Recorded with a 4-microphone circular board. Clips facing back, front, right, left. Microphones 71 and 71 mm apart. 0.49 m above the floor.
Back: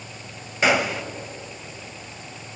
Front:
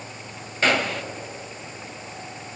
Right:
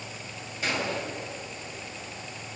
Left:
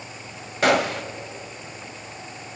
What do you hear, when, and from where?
0.6 s a gunshot: 100° left, 1.0 m